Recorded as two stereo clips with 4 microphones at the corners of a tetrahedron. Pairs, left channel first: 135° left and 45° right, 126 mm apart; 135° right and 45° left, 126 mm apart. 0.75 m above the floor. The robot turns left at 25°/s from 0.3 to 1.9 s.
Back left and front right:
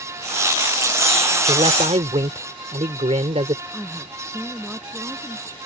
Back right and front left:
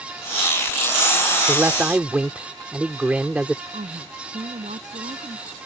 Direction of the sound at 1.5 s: 20° right.